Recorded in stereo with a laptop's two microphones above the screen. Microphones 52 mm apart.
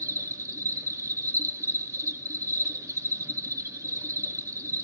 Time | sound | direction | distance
0.0 | an insect | 80° right | 1.6 m